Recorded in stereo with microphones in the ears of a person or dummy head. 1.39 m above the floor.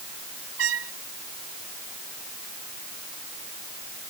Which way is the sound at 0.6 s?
70° right (ahead or behind).